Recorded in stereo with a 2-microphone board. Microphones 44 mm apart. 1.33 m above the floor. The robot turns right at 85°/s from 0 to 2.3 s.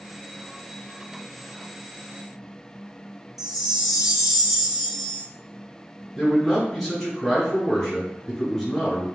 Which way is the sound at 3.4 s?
5° right (ahead or behind).